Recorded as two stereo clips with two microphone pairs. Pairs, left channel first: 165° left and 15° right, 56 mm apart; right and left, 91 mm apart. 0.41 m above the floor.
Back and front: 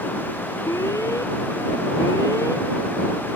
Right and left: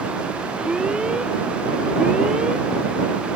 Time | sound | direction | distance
0.7 | an alarm | 170° left | ?